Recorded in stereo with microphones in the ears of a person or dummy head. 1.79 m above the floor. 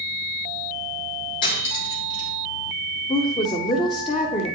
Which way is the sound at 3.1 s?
35° left (ahead or behind).